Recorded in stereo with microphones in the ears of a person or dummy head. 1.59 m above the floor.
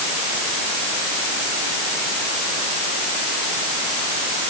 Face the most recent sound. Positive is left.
No sound to turn to.